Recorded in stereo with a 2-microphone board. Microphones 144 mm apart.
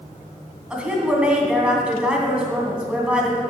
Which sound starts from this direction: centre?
A woman speaking, at 0.7 s.